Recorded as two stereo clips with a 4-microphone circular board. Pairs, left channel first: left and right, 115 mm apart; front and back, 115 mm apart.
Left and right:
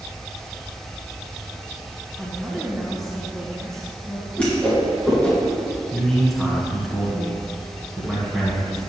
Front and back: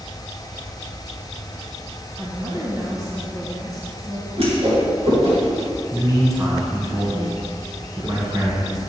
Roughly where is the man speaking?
Behind.